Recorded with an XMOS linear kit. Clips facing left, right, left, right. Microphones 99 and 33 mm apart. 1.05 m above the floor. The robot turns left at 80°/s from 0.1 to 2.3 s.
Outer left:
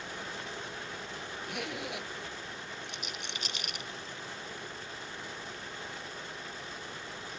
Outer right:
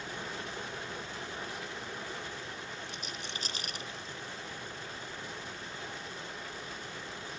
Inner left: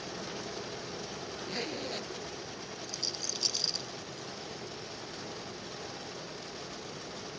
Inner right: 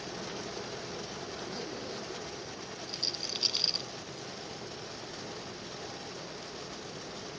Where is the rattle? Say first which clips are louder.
Even, inner right 2 dB; 35° right (ahead or behind).